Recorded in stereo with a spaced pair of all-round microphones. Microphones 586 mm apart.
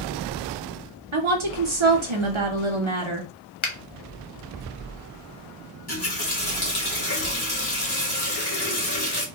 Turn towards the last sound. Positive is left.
turn(degrees=40)  # may be behind; listen again after turning